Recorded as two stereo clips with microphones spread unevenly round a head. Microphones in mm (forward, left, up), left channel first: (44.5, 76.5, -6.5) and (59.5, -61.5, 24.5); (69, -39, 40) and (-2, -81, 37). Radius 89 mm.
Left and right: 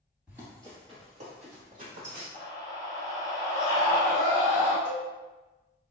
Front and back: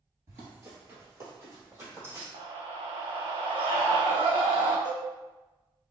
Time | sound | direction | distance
0.3 | running footsteps | 130° right | 1.5 m
2.3 | a scream | 140° right | 0.9 m
4.8 | a cowbell | 120° right | 1.7 m